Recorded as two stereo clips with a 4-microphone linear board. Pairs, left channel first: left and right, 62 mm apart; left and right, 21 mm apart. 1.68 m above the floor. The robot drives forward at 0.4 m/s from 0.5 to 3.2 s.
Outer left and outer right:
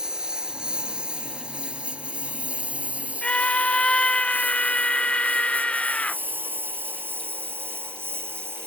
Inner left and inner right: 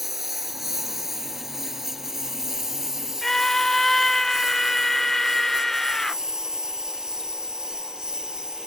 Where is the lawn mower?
15° right (ahead or behind); by 8.7 s 40° right (ahead or behind).